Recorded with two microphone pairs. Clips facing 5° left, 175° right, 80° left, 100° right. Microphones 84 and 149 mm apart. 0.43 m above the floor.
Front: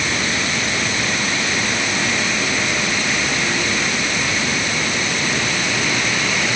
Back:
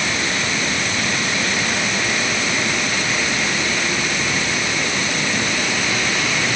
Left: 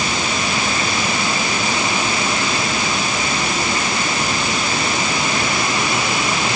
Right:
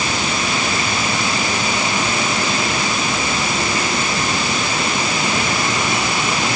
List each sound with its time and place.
Only background noise.